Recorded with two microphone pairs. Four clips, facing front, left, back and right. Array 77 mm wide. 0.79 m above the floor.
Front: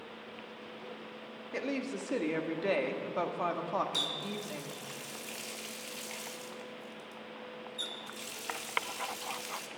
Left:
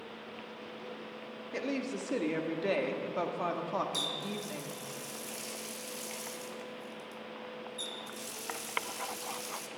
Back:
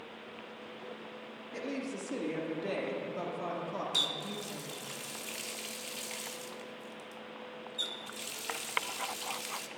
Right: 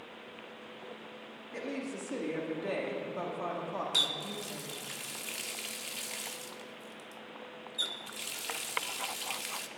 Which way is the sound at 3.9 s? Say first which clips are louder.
Even, even; 80° right.